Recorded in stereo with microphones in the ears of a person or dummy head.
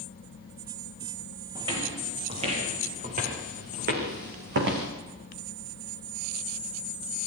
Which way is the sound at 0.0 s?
45° left (ahead or behind).